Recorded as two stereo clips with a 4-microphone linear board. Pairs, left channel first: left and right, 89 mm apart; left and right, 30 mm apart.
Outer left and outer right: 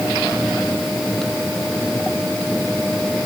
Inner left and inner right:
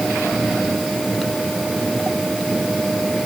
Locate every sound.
Only background noise.